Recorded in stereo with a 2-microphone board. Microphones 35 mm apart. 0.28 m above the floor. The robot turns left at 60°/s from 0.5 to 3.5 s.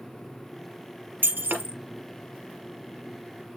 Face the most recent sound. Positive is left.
turn(degrees=115)